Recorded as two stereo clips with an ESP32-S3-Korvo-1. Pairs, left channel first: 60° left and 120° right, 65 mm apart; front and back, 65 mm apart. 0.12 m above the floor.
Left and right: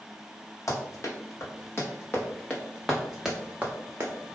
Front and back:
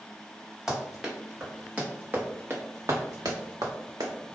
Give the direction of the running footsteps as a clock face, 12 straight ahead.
9 o'clock.